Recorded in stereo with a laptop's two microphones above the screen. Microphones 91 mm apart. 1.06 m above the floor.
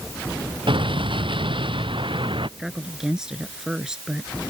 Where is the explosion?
75° right (ahead or behind).